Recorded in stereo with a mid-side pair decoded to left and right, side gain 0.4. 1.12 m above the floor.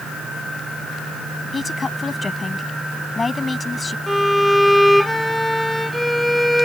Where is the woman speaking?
35° left.